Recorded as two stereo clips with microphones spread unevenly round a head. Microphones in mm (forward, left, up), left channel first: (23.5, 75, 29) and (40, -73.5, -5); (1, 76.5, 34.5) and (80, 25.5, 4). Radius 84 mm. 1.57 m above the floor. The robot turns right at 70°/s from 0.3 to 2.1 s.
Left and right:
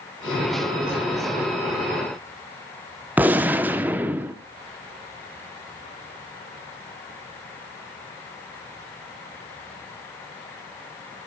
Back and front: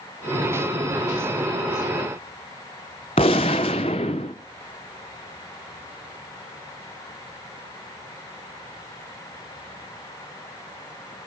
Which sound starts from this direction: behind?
A gunshot, at 3.2 s.